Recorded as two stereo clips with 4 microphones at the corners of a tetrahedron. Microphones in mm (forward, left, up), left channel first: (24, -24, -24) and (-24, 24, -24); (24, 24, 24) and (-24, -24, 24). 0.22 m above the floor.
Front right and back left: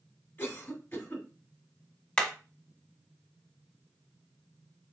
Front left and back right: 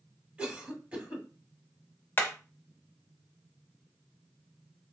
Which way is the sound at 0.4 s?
75° right.